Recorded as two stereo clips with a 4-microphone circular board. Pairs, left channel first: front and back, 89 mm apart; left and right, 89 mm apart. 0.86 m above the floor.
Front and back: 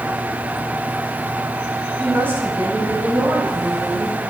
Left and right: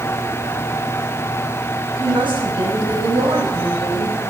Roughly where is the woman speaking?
Behind right.